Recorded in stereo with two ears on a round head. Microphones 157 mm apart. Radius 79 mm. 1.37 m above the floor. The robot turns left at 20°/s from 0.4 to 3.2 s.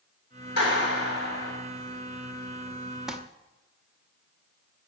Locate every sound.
0.6 s a clap: 65° left (ahead or behind), 8 m; by 1.5 s 45° left (ahead or behind), 8 m
3.1 s crumpling: 5° right (ahead or behind), 0.9 m